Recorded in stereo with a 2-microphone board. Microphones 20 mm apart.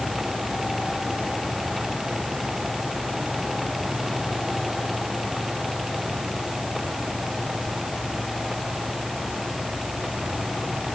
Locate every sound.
Only background noise.